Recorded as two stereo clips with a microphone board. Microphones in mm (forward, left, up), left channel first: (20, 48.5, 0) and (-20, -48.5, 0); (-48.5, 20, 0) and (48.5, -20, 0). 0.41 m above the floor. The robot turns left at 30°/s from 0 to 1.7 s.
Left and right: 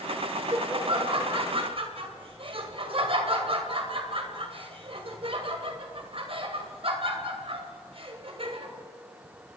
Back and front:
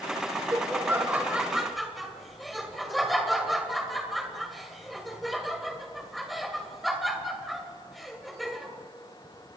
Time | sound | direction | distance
0.3 | laughter | 70° right | 2 m